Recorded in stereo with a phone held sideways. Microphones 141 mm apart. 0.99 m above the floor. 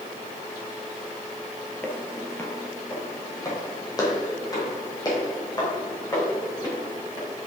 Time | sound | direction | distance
1.8 | footsteps | 15° left (ahead or behind) | 1.3 m